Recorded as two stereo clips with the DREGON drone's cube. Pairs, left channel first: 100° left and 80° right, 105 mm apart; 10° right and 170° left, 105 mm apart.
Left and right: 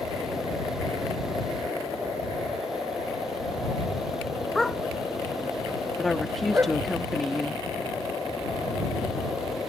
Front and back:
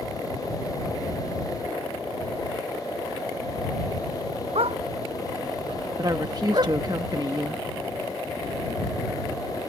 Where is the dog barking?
170° right; by 6.8 s 145° right.